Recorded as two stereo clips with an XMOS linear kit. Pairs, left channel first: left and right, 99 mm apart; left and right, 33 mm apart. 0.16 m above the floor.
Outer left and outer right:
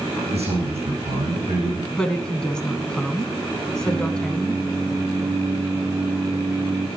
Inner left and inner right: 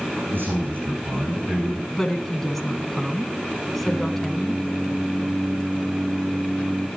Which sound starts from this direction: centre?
A woman speaking, at 1.9 s.